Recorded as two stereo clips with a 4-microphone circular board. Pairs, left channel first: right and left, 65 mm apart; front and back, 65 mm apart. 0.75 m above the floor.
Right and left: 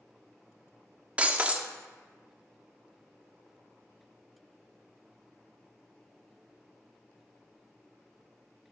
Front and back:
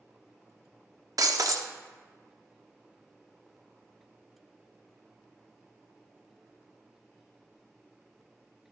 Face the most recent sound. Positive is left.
turn(degrees=160)